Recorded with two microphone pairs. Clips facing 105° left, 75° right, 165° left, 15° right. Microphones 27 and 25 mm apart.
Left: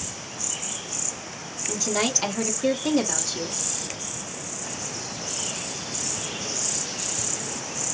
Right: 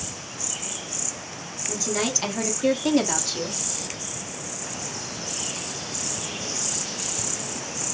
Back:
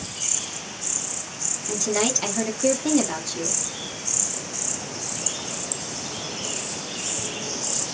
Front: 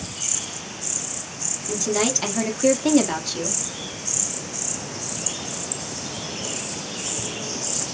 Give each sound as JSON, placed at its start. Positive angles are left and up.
{"t": 1.7, "sound": "a woman speaking", "azimuth_deg": 75, "distance_m": 1.0}